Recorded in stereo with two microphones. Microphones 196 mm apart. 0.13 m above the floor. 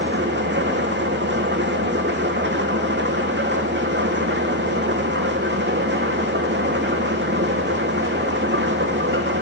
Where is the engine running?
65° right (ahead or behind), 2.5 m.